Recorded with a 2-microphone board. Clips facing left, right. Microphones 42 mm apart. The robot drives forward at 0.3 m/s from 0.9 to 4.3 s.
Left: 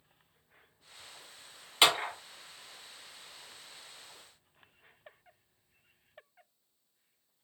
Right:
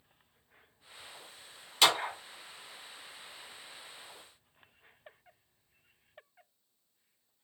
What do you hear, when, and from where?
1.8 s a clap: 25° left (ahead or behind), 0.9 m; by 2.1 s 30° left (ahead or behind), 0.8 m